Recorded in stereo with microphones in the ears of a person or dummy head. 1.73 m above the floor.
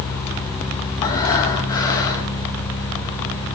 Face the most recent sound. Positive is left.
turn(degrees=20)  # may be behind; listen again after turning